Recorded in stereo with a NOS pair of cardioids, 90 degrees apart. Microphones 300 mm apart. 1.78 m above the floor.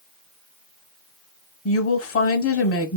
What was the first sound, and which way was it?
A woman speaking, 50° left.